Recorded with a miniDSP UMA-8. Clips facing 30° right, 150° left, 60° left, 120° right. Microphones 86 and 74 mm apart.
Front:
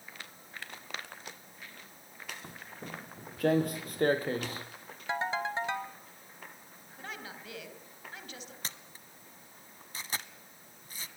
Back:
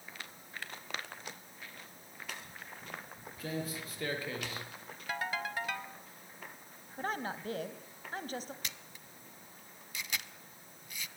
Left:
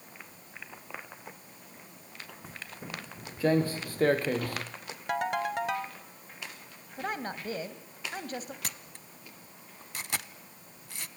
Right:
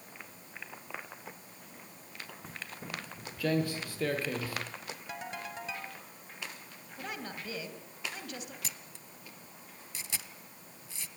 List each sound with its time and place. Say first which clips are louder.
2.4 s footsteps: front 3 dB, left 1 dB; 30° right, 2.5 m; by 4.7 s 25° left, 3 m
5.1 s a ringtone: front 4 dB, left 13 dB; 35° left, 1.7 m
7.0 s a woman speaking: back 7 dB, left 6 dB; 105° left, 3.5 m
8.6 s a camera shutter: front 1 dB, left 3 dB; 25° left, 1.0 m